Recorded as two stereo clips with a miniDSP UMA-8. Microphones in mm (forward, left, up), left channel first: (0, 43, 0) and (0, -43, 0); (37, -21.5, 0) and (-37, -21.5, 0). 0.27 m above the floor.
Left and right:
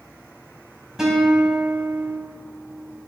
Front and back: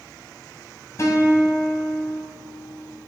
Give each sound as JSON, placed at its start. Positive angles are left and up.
{"t": 1.0, "sound": "a guitar", "azimuth_deg": -10, "distance_m": 1.9}